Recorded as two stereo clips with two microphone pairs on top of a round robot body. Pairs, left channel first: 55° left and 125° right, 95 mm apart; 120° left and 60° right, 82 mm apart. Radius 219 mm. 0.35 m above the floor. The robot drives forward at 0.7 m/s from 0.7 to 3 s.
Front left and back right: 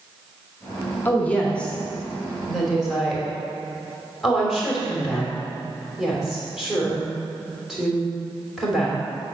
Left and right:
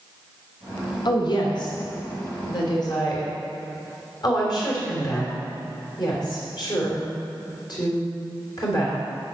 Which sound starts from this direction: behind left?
A woman speaking, at 1.1 s.